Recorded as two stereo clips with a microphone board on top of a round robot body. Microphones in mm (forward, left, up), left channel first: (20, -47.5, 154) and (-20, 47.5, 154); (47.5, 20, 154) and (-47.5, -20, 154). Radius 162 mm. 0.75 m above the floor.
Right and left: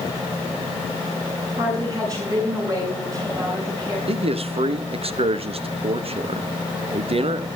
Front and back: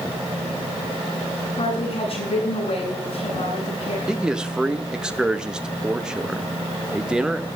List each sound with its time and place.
1.6 s a woman speaking: 55° left, 8.5 m
4.1 s a man speaking: 120° left, 1.3 m